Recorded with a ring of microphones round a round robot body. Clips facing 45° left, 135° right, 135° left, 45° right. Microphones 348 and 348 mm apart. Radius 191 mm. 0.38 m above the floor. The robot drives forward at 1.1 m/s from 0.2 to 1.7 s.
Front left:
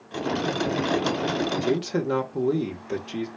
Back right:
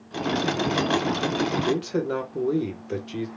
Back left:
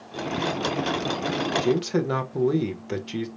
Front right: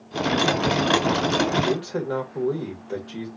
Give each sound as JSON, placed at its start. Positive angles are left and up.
{"t": 1.6, "sound": "a man speaking", "azimuth_deg": 120, "distance_m": 1.3}